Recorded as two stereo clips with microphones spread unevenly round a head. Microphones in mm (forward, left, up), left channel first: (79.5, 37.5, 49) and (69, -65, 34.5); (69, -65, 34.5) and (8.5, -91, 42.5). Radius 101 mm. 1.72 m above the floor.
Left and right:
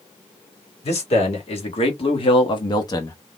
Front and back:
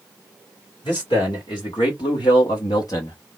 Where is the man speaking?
80° left, 1.7 m; by 3.2 s 55° left, 0.8 m.